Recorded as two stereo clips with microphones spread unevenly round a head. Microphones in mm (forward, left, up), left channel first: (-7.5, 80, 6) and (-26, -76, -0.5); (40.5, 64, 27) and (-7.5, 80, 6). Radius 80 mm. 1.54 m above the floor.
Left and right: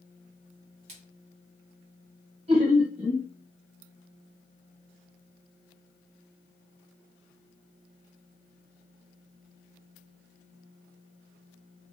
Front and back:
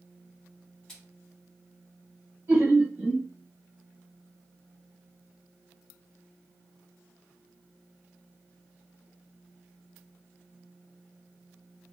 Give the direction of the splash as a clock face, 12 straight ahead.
2 o'clock.